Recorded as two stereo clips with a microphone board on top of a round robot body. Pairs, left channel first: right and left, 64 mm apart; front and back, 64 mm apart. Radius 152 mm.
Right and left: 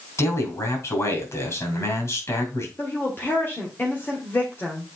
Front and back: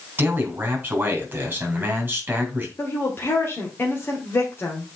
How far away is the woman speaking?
About 2 m.